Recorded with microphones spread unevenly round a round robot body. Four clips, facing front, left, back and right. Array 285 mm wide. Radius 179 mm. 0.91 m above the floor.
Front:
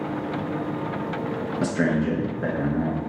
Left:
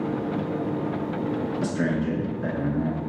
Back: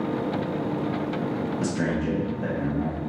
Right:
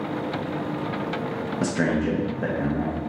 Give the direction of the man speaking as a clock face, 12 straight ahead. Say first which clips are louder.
Right 5 dB, front 6 dB; 6 o'clock.